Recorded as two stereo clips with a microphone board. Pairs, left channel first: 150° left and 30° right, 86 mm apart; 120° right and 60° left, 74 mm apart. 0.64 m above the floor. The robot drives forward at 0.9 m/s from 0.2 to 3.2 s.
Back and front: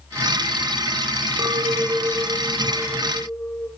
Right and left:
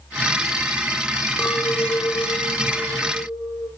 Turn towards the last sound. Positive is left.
turn(degrees=-140)